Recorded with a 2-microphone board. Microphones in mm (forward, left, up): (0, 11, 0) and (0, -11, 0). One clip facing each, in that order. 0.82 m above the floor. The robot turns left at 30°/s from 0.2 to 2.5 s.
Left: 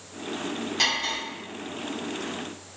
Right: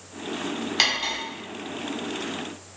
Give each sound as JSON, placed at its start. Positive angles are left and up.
{"t": 0.8, "sound": "cutlery clinking", "side_deg": -55, "distance_m": 1.1}